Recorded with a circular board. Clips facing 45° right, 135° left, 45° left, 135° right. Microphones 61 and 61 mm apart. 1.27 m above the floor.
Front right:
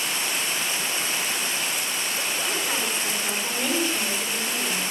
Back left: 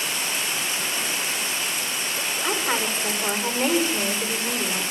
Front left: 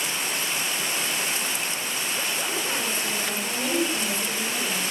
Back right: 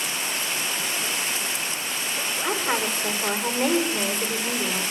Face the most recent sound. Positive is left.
turn(degrees=-170)